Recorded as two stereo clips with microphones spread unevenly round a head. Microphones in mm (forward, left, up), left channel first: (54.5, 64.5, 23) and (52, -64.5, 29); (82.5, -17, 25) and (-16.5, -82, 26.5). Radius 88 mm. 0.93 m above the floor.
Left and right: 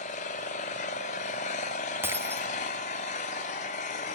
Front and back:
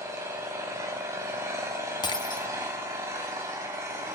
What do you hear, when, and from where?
0.0 s an engine running: 140° left, 3.5 m
2.0 s breaking glass: 20° right, 3 m